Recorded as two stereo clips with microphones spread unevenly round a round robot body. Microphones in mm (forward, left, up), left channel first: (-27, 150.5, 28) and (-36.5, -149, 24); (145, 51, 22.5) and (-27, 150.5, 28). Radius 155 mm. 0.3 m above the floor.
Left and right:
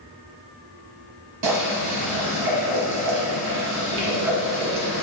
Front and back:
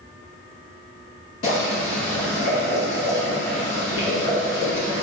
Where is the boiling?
65° right, 1.0 m.